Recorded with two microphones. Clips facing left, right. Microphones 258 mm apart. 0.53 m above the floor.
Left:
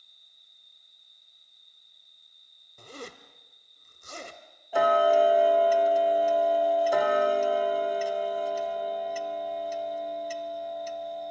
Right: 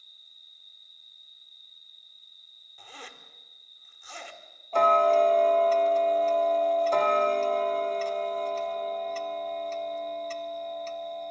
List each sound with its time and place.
0.0 s an insect: 65° right (ahead or behind), 2 m
2.8 s a zipper: 45° left (ahead or behind), 1.3 m
4.7 s ticking: 10° left (ahead or behind), 0.5 m